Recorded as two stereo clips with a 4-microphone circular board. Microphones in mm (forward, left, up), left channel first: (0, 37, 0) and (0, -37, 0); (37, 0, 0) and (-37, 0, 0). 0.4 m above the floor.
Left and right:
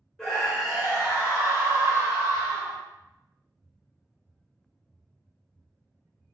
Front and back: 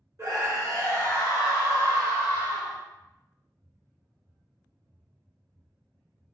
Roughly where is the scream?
Behind.